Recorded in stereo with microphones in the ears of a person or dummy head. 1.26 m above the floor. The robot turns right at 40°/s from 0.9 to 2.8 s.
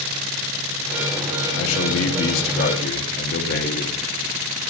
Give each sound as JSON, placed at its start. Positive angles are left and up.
{"t": 1.6, "sound": "a man speaking", "azimuth_deg": 80, "distance_m": 0.9}